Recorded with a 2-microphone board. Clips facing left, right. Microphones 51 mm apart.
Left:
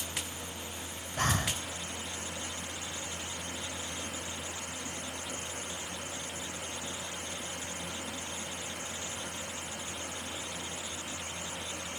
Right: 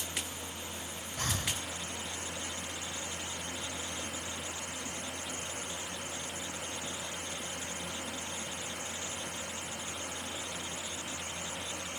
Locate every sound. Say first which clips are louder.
1.2 s breathing: left 6 dB; 50° left (ahead or behind), 1.2 m